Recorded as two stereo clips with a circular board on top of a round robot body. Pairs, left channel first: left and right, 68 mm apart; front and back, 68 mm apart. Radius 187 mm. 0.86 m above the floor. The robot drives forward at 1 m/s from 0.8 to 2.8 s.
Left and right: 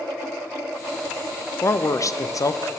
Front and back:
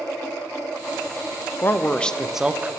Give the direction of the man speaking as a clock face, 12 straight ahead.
10 o'clock.